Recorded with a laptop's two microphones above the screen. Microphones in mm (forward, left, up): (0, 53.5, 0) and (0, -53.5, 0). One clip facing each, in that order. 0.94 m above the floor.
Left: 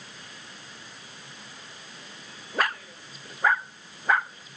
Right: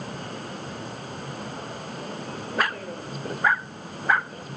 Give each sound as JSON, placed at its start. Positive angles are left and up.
{"t": 0.0, "sound": "a vehicle", "side_deg": -55}